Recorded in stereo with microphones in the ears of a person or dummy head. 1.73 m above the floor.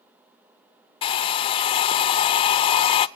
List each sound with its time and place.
1.0 s a hair dryer: 20° left (ahead or behind), 0.6 m